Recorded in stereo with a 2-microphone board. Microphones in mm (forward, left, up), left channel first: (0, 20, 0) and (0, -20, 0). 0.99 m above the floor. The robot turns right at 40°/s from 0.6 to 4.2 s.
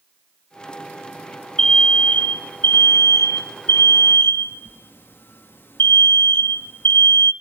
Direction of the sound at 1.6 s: 15° left.